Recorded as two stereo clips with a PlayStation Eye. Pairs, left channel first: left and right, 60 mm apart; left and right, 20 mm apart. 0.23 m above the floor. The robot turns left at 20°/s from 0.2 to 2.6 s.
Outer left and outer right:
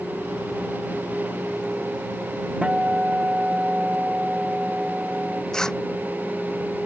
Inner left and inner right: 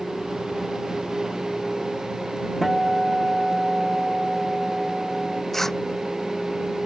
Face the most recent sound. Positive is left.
turn(degrees=10)  # may be behind; listen again after turning